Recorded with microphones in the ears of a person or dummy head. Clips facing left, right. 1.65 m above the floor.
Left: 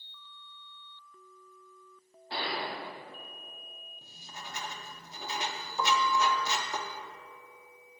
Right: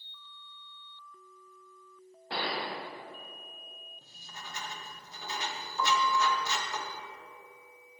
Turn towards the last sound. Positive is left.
turn(degrees=25)  # may be behind; listen again after turning